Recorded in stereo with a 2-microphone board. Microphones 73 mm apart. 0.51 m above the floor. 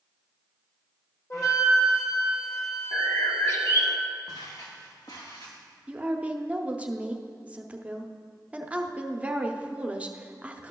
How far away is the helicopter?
No helicopter in this recording.